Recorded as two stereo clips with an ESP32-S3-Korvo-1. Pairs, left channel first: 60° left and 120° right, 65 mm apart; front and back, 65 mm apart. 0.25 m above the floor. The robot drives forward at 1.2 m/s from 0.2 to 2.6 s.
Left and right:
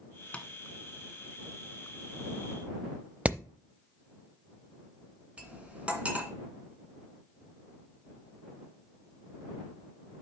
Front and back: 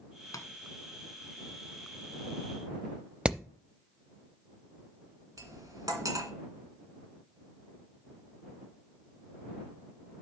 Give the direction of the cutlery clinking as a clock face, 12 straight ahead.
6 o'clock.